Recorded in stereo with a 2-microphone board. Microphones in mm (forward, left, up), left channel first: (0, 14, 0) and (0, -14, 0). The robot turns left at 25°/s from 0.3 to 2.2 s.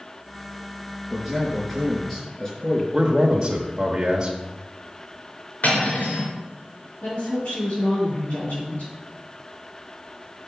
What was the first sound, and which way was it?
A man speaking, 10° right (ahead or behind).